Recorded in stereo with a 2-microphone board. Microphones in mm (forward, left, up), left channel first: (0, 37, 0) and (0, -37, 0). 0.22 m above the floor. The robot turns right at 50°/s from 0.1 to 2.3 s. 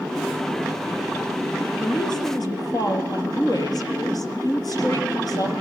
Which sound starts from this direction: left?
A woman speaking, at 1.8 s.